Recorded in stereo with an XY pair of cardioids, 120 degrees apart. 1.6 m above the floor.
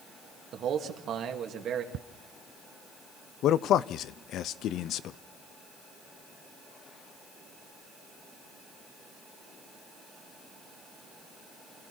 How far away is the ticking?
About 0.5 m.